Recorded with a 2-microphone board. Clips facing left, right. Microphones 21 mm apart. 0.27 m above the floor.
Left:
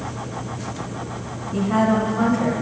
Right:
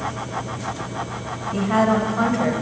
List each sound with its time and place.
1.5 s a woman speaking: 20° right (ahead or behind), 0.9 m